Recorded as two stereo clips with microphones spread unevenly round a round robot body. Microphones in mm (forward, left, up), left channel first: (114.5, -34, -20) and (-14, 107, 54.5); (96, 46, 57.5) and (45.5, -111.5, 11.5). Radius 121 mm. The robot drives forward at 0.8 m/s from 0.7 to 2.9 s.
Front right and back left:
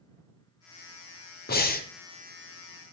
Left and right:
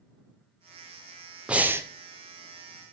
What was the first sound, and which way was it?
Breathing, 30° right.